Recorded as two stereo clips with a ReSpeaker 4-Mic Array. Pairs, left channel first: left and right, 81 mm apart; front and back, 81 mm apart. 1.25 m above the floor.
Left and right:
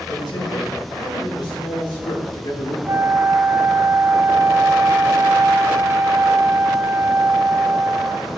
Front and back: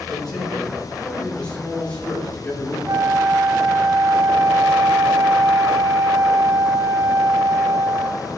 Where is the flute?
140° right, 1.0 m.